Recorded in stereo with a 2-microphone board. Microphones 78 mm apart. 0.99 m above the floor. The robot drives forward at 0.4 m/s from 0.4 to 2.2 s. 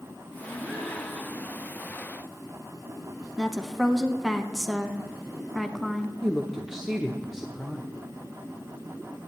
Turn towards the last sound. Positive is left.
turn(degrees=-5)  # may be behind; listen again after turning